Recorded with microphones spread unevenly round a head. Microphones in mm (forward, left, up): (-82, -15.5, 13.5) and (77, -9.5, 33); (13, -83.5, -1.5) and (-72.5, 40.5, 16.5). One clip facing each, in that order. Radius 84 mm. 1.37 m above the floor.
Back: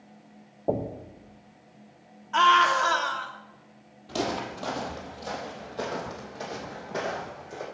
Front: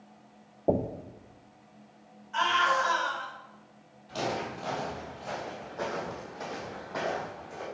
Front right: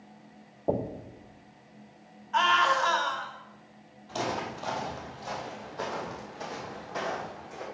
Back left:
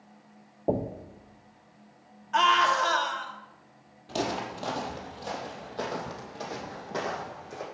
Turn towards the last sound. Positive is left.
turn(degrees=110)